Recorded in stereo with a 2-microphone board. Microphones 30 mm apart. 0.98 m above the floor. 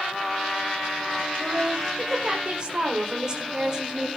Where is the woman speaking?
30° right (ahead or behind), 4 m; by 4.2 s 20° right (ahead or behind), 2.5 m.